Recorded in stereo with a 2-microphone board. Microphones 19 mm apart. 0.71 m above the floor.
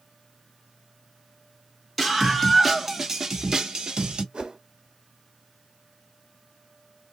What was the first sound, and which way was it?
A scream, 5° left (ahead or behind).